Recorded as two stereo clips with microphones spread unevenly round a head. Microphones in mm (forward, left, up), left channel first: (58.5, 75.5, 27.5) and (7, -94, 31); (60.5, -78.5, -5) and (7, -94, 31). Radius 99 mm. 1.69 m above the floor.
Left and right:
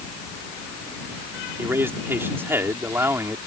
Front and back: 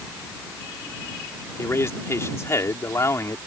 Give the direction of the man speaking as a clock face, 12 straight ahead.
1 o'clock.